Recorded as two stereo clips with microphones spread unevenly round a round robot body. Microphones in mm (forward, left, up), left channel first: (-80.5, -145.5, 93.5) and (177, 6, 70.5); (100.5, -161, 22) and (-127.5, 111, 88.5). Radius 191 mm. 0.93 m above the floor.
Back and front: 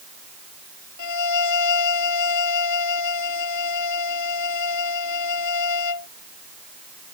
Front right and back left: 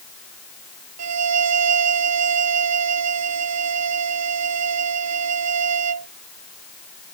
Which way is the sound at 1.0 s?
175° left.